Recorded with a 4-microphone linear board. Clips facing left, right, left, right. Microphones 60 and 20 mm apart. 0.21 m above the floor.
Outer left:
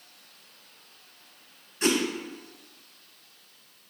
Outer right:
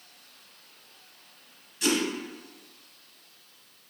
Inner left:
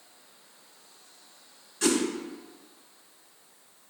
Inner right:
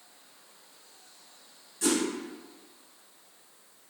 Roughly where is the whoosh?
Left.